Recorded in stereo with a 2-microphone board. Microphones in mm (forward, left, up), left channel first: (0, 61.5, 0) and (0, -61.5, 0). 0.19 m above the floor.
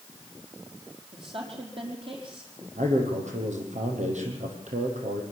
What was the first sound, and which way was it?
A woman speaking, 50° right (ahead or behind).